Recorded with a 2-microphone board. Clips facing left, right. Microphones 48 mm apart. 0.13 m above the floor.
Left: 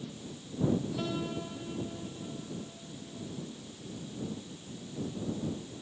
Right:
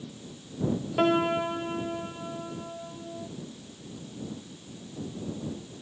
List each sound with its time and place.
1.0 s a piano: 60° right (ahead or behind)